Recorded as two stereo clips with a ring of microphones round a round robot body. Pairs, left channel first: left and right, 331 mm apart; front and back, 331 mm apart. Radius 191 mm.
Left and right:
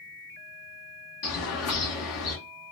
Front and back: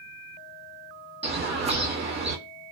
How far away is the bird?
About 1.7 m.